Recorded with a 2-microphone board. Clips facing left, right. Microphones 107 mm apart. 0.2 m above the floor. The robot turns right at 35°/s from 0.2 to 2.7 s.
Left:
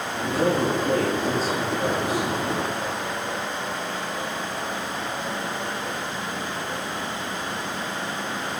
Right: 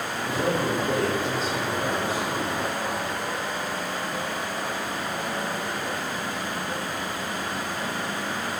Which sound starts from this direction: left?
A man speaking, at 0.2 s.